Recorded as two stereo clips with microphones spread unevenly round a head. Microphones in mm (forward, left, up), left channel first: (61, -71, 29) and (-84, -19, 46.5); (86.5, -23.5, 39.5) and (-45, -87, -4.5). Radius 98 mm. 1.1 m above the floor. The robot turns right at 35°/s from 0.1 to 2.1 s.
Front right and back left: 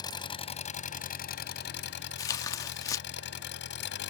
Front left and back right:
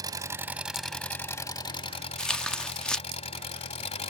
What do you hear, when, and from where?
0.0 s an engine running: 85° right; by 4.1 s 15° right
2.2 s tearing paper: 40° left